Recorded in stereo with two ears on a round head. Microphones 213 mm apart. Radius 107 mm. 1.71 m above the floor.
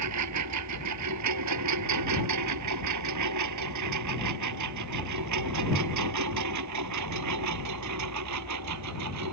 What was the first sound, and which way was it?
A lawn mower, 80° right.